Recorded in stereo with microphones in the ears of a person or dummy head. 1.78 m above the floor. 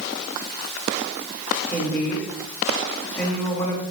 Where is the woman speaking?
15° left (ahead or behind), 3 m.